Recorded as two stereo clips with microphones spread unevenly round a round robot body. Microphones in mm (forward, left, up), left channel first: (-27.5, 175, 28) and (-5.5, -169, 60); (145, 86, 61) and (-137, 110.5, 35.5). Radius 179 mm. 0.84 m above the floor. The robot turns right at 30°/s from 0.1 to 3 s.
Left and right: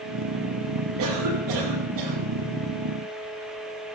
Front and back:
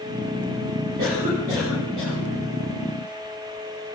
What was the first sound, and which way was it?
A cough, 130° right.